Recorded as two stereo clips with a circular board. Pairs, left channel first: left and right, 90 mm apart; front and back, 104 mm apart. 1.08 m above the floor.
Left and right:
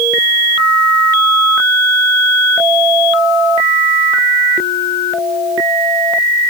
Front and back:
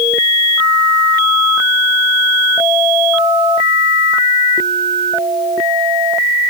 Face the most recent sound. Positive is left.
No sound to turn to.